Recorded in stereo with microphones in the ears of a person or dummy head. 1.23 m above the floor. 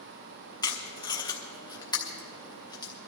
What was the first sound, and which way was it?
Tape being pulled, 25° left (ahead or behind).